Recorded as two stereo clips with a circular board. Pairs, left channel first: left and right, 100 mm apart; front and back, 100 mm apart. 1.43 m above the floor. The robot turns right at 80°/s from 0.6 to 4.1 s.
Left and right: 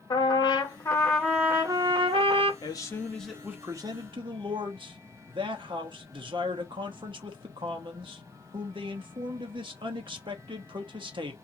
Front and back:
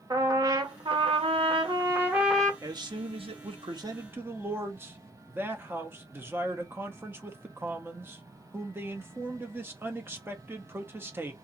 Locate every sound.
0.1 s a trumpet: 130° left, 0.7 m; by 2.5 s 75° right, 0.7 m
2.6 s a man speaking: 125° left, 0.7 m; by 11.3 s 115° right, 0.7 m